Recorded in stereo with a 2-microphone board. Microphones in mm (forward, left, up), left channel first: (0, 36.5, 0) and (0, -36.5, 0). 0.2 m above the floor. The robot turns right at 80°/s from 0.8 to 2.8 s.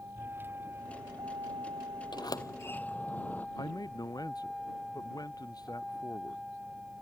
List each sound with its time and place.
0.0 s a vehicle: 30° right (ahead or behind); by 7.0 s 5° right (ahead or behind)
2.1 s a sliding door: 105° left; by 3.5 s 160° left
3.6 s a man speaking: 60° left (ahead or behind)